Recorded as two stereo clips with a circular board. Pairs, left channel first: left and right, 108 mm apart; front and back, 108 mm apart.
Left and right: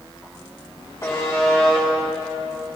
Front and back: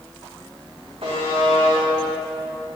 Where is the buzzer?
150° left, 4 m.